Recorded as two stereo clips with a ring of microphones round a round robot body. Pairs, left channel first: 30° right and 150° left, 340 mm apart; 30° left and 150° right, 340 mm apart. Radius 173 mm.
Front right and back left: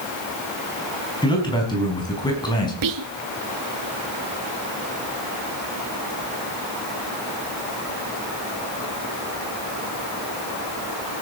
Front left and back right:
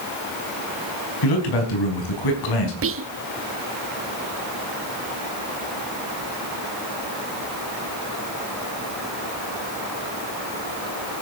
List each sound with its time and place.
1.2 s a man speaking: 45° left, 5 m
2.8 s whispering: 165° left, 1.0 m